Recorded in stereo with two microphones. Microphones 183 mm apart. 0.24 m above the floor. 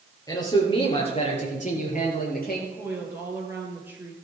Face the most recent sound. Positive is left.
turn(degrees=-10)  # may be behind; listen again after turning